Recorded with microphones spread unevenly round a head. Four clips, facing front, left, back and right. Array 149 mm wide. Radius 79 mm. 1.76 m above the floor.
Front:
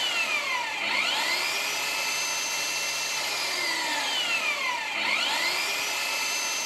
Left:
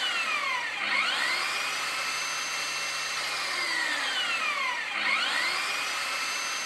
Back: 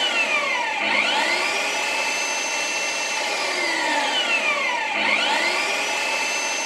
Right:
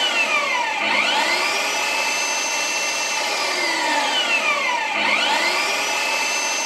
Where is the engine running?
130° right.